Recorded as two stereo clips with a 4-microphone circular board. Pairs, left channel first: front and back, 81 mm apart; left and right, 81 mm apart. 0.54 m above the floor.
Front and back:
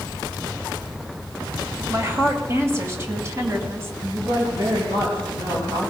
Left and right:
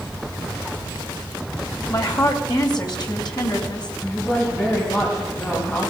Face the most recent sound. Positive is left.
turn(degrees=150)